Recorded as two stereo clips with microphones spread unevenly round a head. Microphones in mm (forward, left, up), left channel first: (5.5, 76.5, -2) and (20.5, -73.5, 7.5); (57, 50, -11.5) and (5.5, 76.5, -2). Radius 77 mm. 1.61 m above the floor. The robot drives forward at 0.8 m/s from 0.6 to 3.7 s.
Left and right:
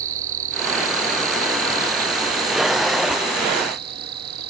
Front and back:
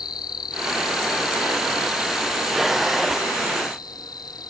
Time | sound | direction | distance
0.0 | an insect | 50° right | ?